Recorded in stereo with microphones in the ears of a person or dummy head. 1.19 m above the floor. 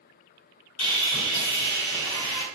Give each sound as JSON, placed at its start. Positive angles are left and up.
{"t": 0.8, "sound": "sawing", "side_deg": 80, "distance_m": 1.8}